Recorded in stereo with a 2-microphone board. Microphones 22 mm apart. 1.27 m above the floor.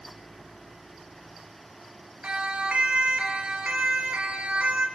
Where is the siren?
65° right (ahead or behind), 4.5 m; by 4.9 s 80° right, 5 m.